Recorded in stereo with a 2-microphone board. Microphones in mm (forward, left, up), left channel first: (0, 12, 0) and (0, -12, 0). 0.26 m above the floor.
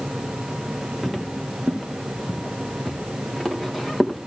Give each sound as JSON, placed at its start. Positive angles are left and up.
{"t": 1.0, "sound": "footsteps", "side_deg": 0, "distance_m": 2.0}